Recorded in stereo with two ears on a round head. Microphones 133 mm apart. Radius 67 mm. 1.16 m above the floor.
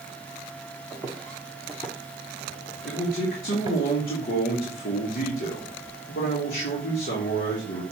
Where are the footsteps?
15° left (ahead or behind), 2 m; by 3.8 s 30° right (ahead or behind), 1.2 m.